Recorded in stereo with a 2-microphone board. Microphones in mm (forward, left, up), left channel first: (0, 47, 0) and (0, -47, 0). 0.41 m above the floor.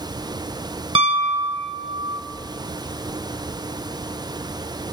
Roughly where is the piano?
Right.